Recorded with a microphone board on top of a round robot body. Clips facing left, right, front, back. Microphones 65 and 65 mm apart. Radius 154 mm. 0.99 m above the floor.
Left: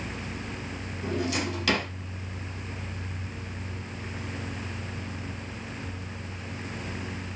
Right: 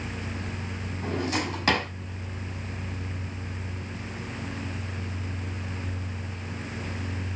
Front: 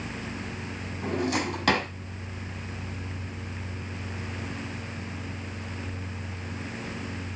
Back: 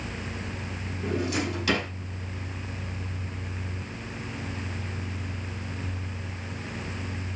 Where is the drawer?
35° right, 6 m.